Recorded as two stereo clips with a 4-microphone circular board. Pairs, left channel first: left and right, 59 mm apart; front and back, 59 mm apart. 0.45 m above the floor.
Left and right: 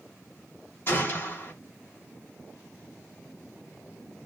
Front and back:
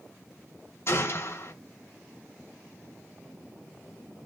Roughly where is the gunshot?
Ahead left.